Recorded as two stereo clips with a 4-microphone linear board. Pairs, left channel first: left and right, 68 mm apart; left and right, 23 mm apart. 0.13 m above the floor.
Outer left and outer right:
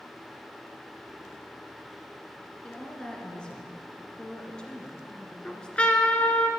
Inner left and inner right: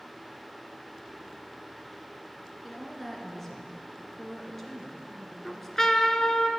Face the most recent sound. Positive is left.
turn(degrees=15)  # may be behind; listen again after turning